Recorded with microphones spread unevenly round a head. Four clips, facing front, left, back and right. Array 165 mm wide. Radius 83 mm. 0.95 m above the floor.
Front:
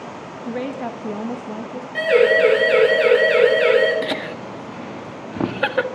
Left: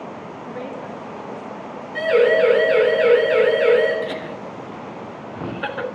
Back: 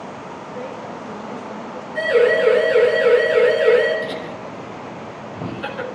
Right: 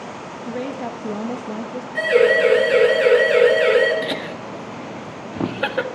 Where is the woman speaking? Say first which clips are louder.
Right 5 dB, front 7 dB; 10° right, 1.1 m; by 1.9 s 70° right, 1.4 m.